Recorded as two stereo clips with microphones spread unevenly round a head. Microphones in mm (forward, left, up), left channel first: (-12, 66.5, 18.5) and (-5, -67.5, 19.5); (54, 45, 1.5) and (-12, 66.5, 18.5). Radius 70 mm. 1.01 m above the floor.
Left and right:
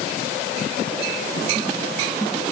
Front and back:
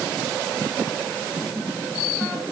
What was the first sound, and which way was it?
Only background noise.